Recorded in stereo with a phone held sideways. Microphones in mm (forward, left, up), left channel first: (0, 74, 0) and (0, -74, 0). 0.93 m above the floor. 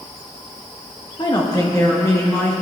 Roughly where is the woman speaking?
Left.